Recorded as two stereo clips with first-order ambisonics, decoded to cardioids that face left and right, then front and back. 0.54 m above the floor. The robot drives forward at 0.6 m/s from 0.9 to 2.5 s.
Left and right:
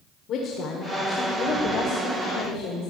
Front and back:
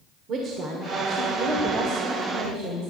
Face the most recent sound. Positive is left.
turn(degrees=150)